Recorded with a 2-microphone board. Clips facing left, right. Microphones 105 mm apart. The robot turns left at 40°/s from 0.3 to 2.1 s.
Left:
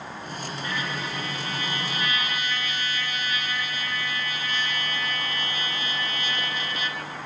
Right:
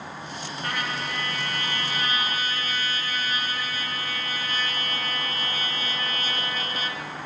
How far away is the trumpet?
About 2.5 m.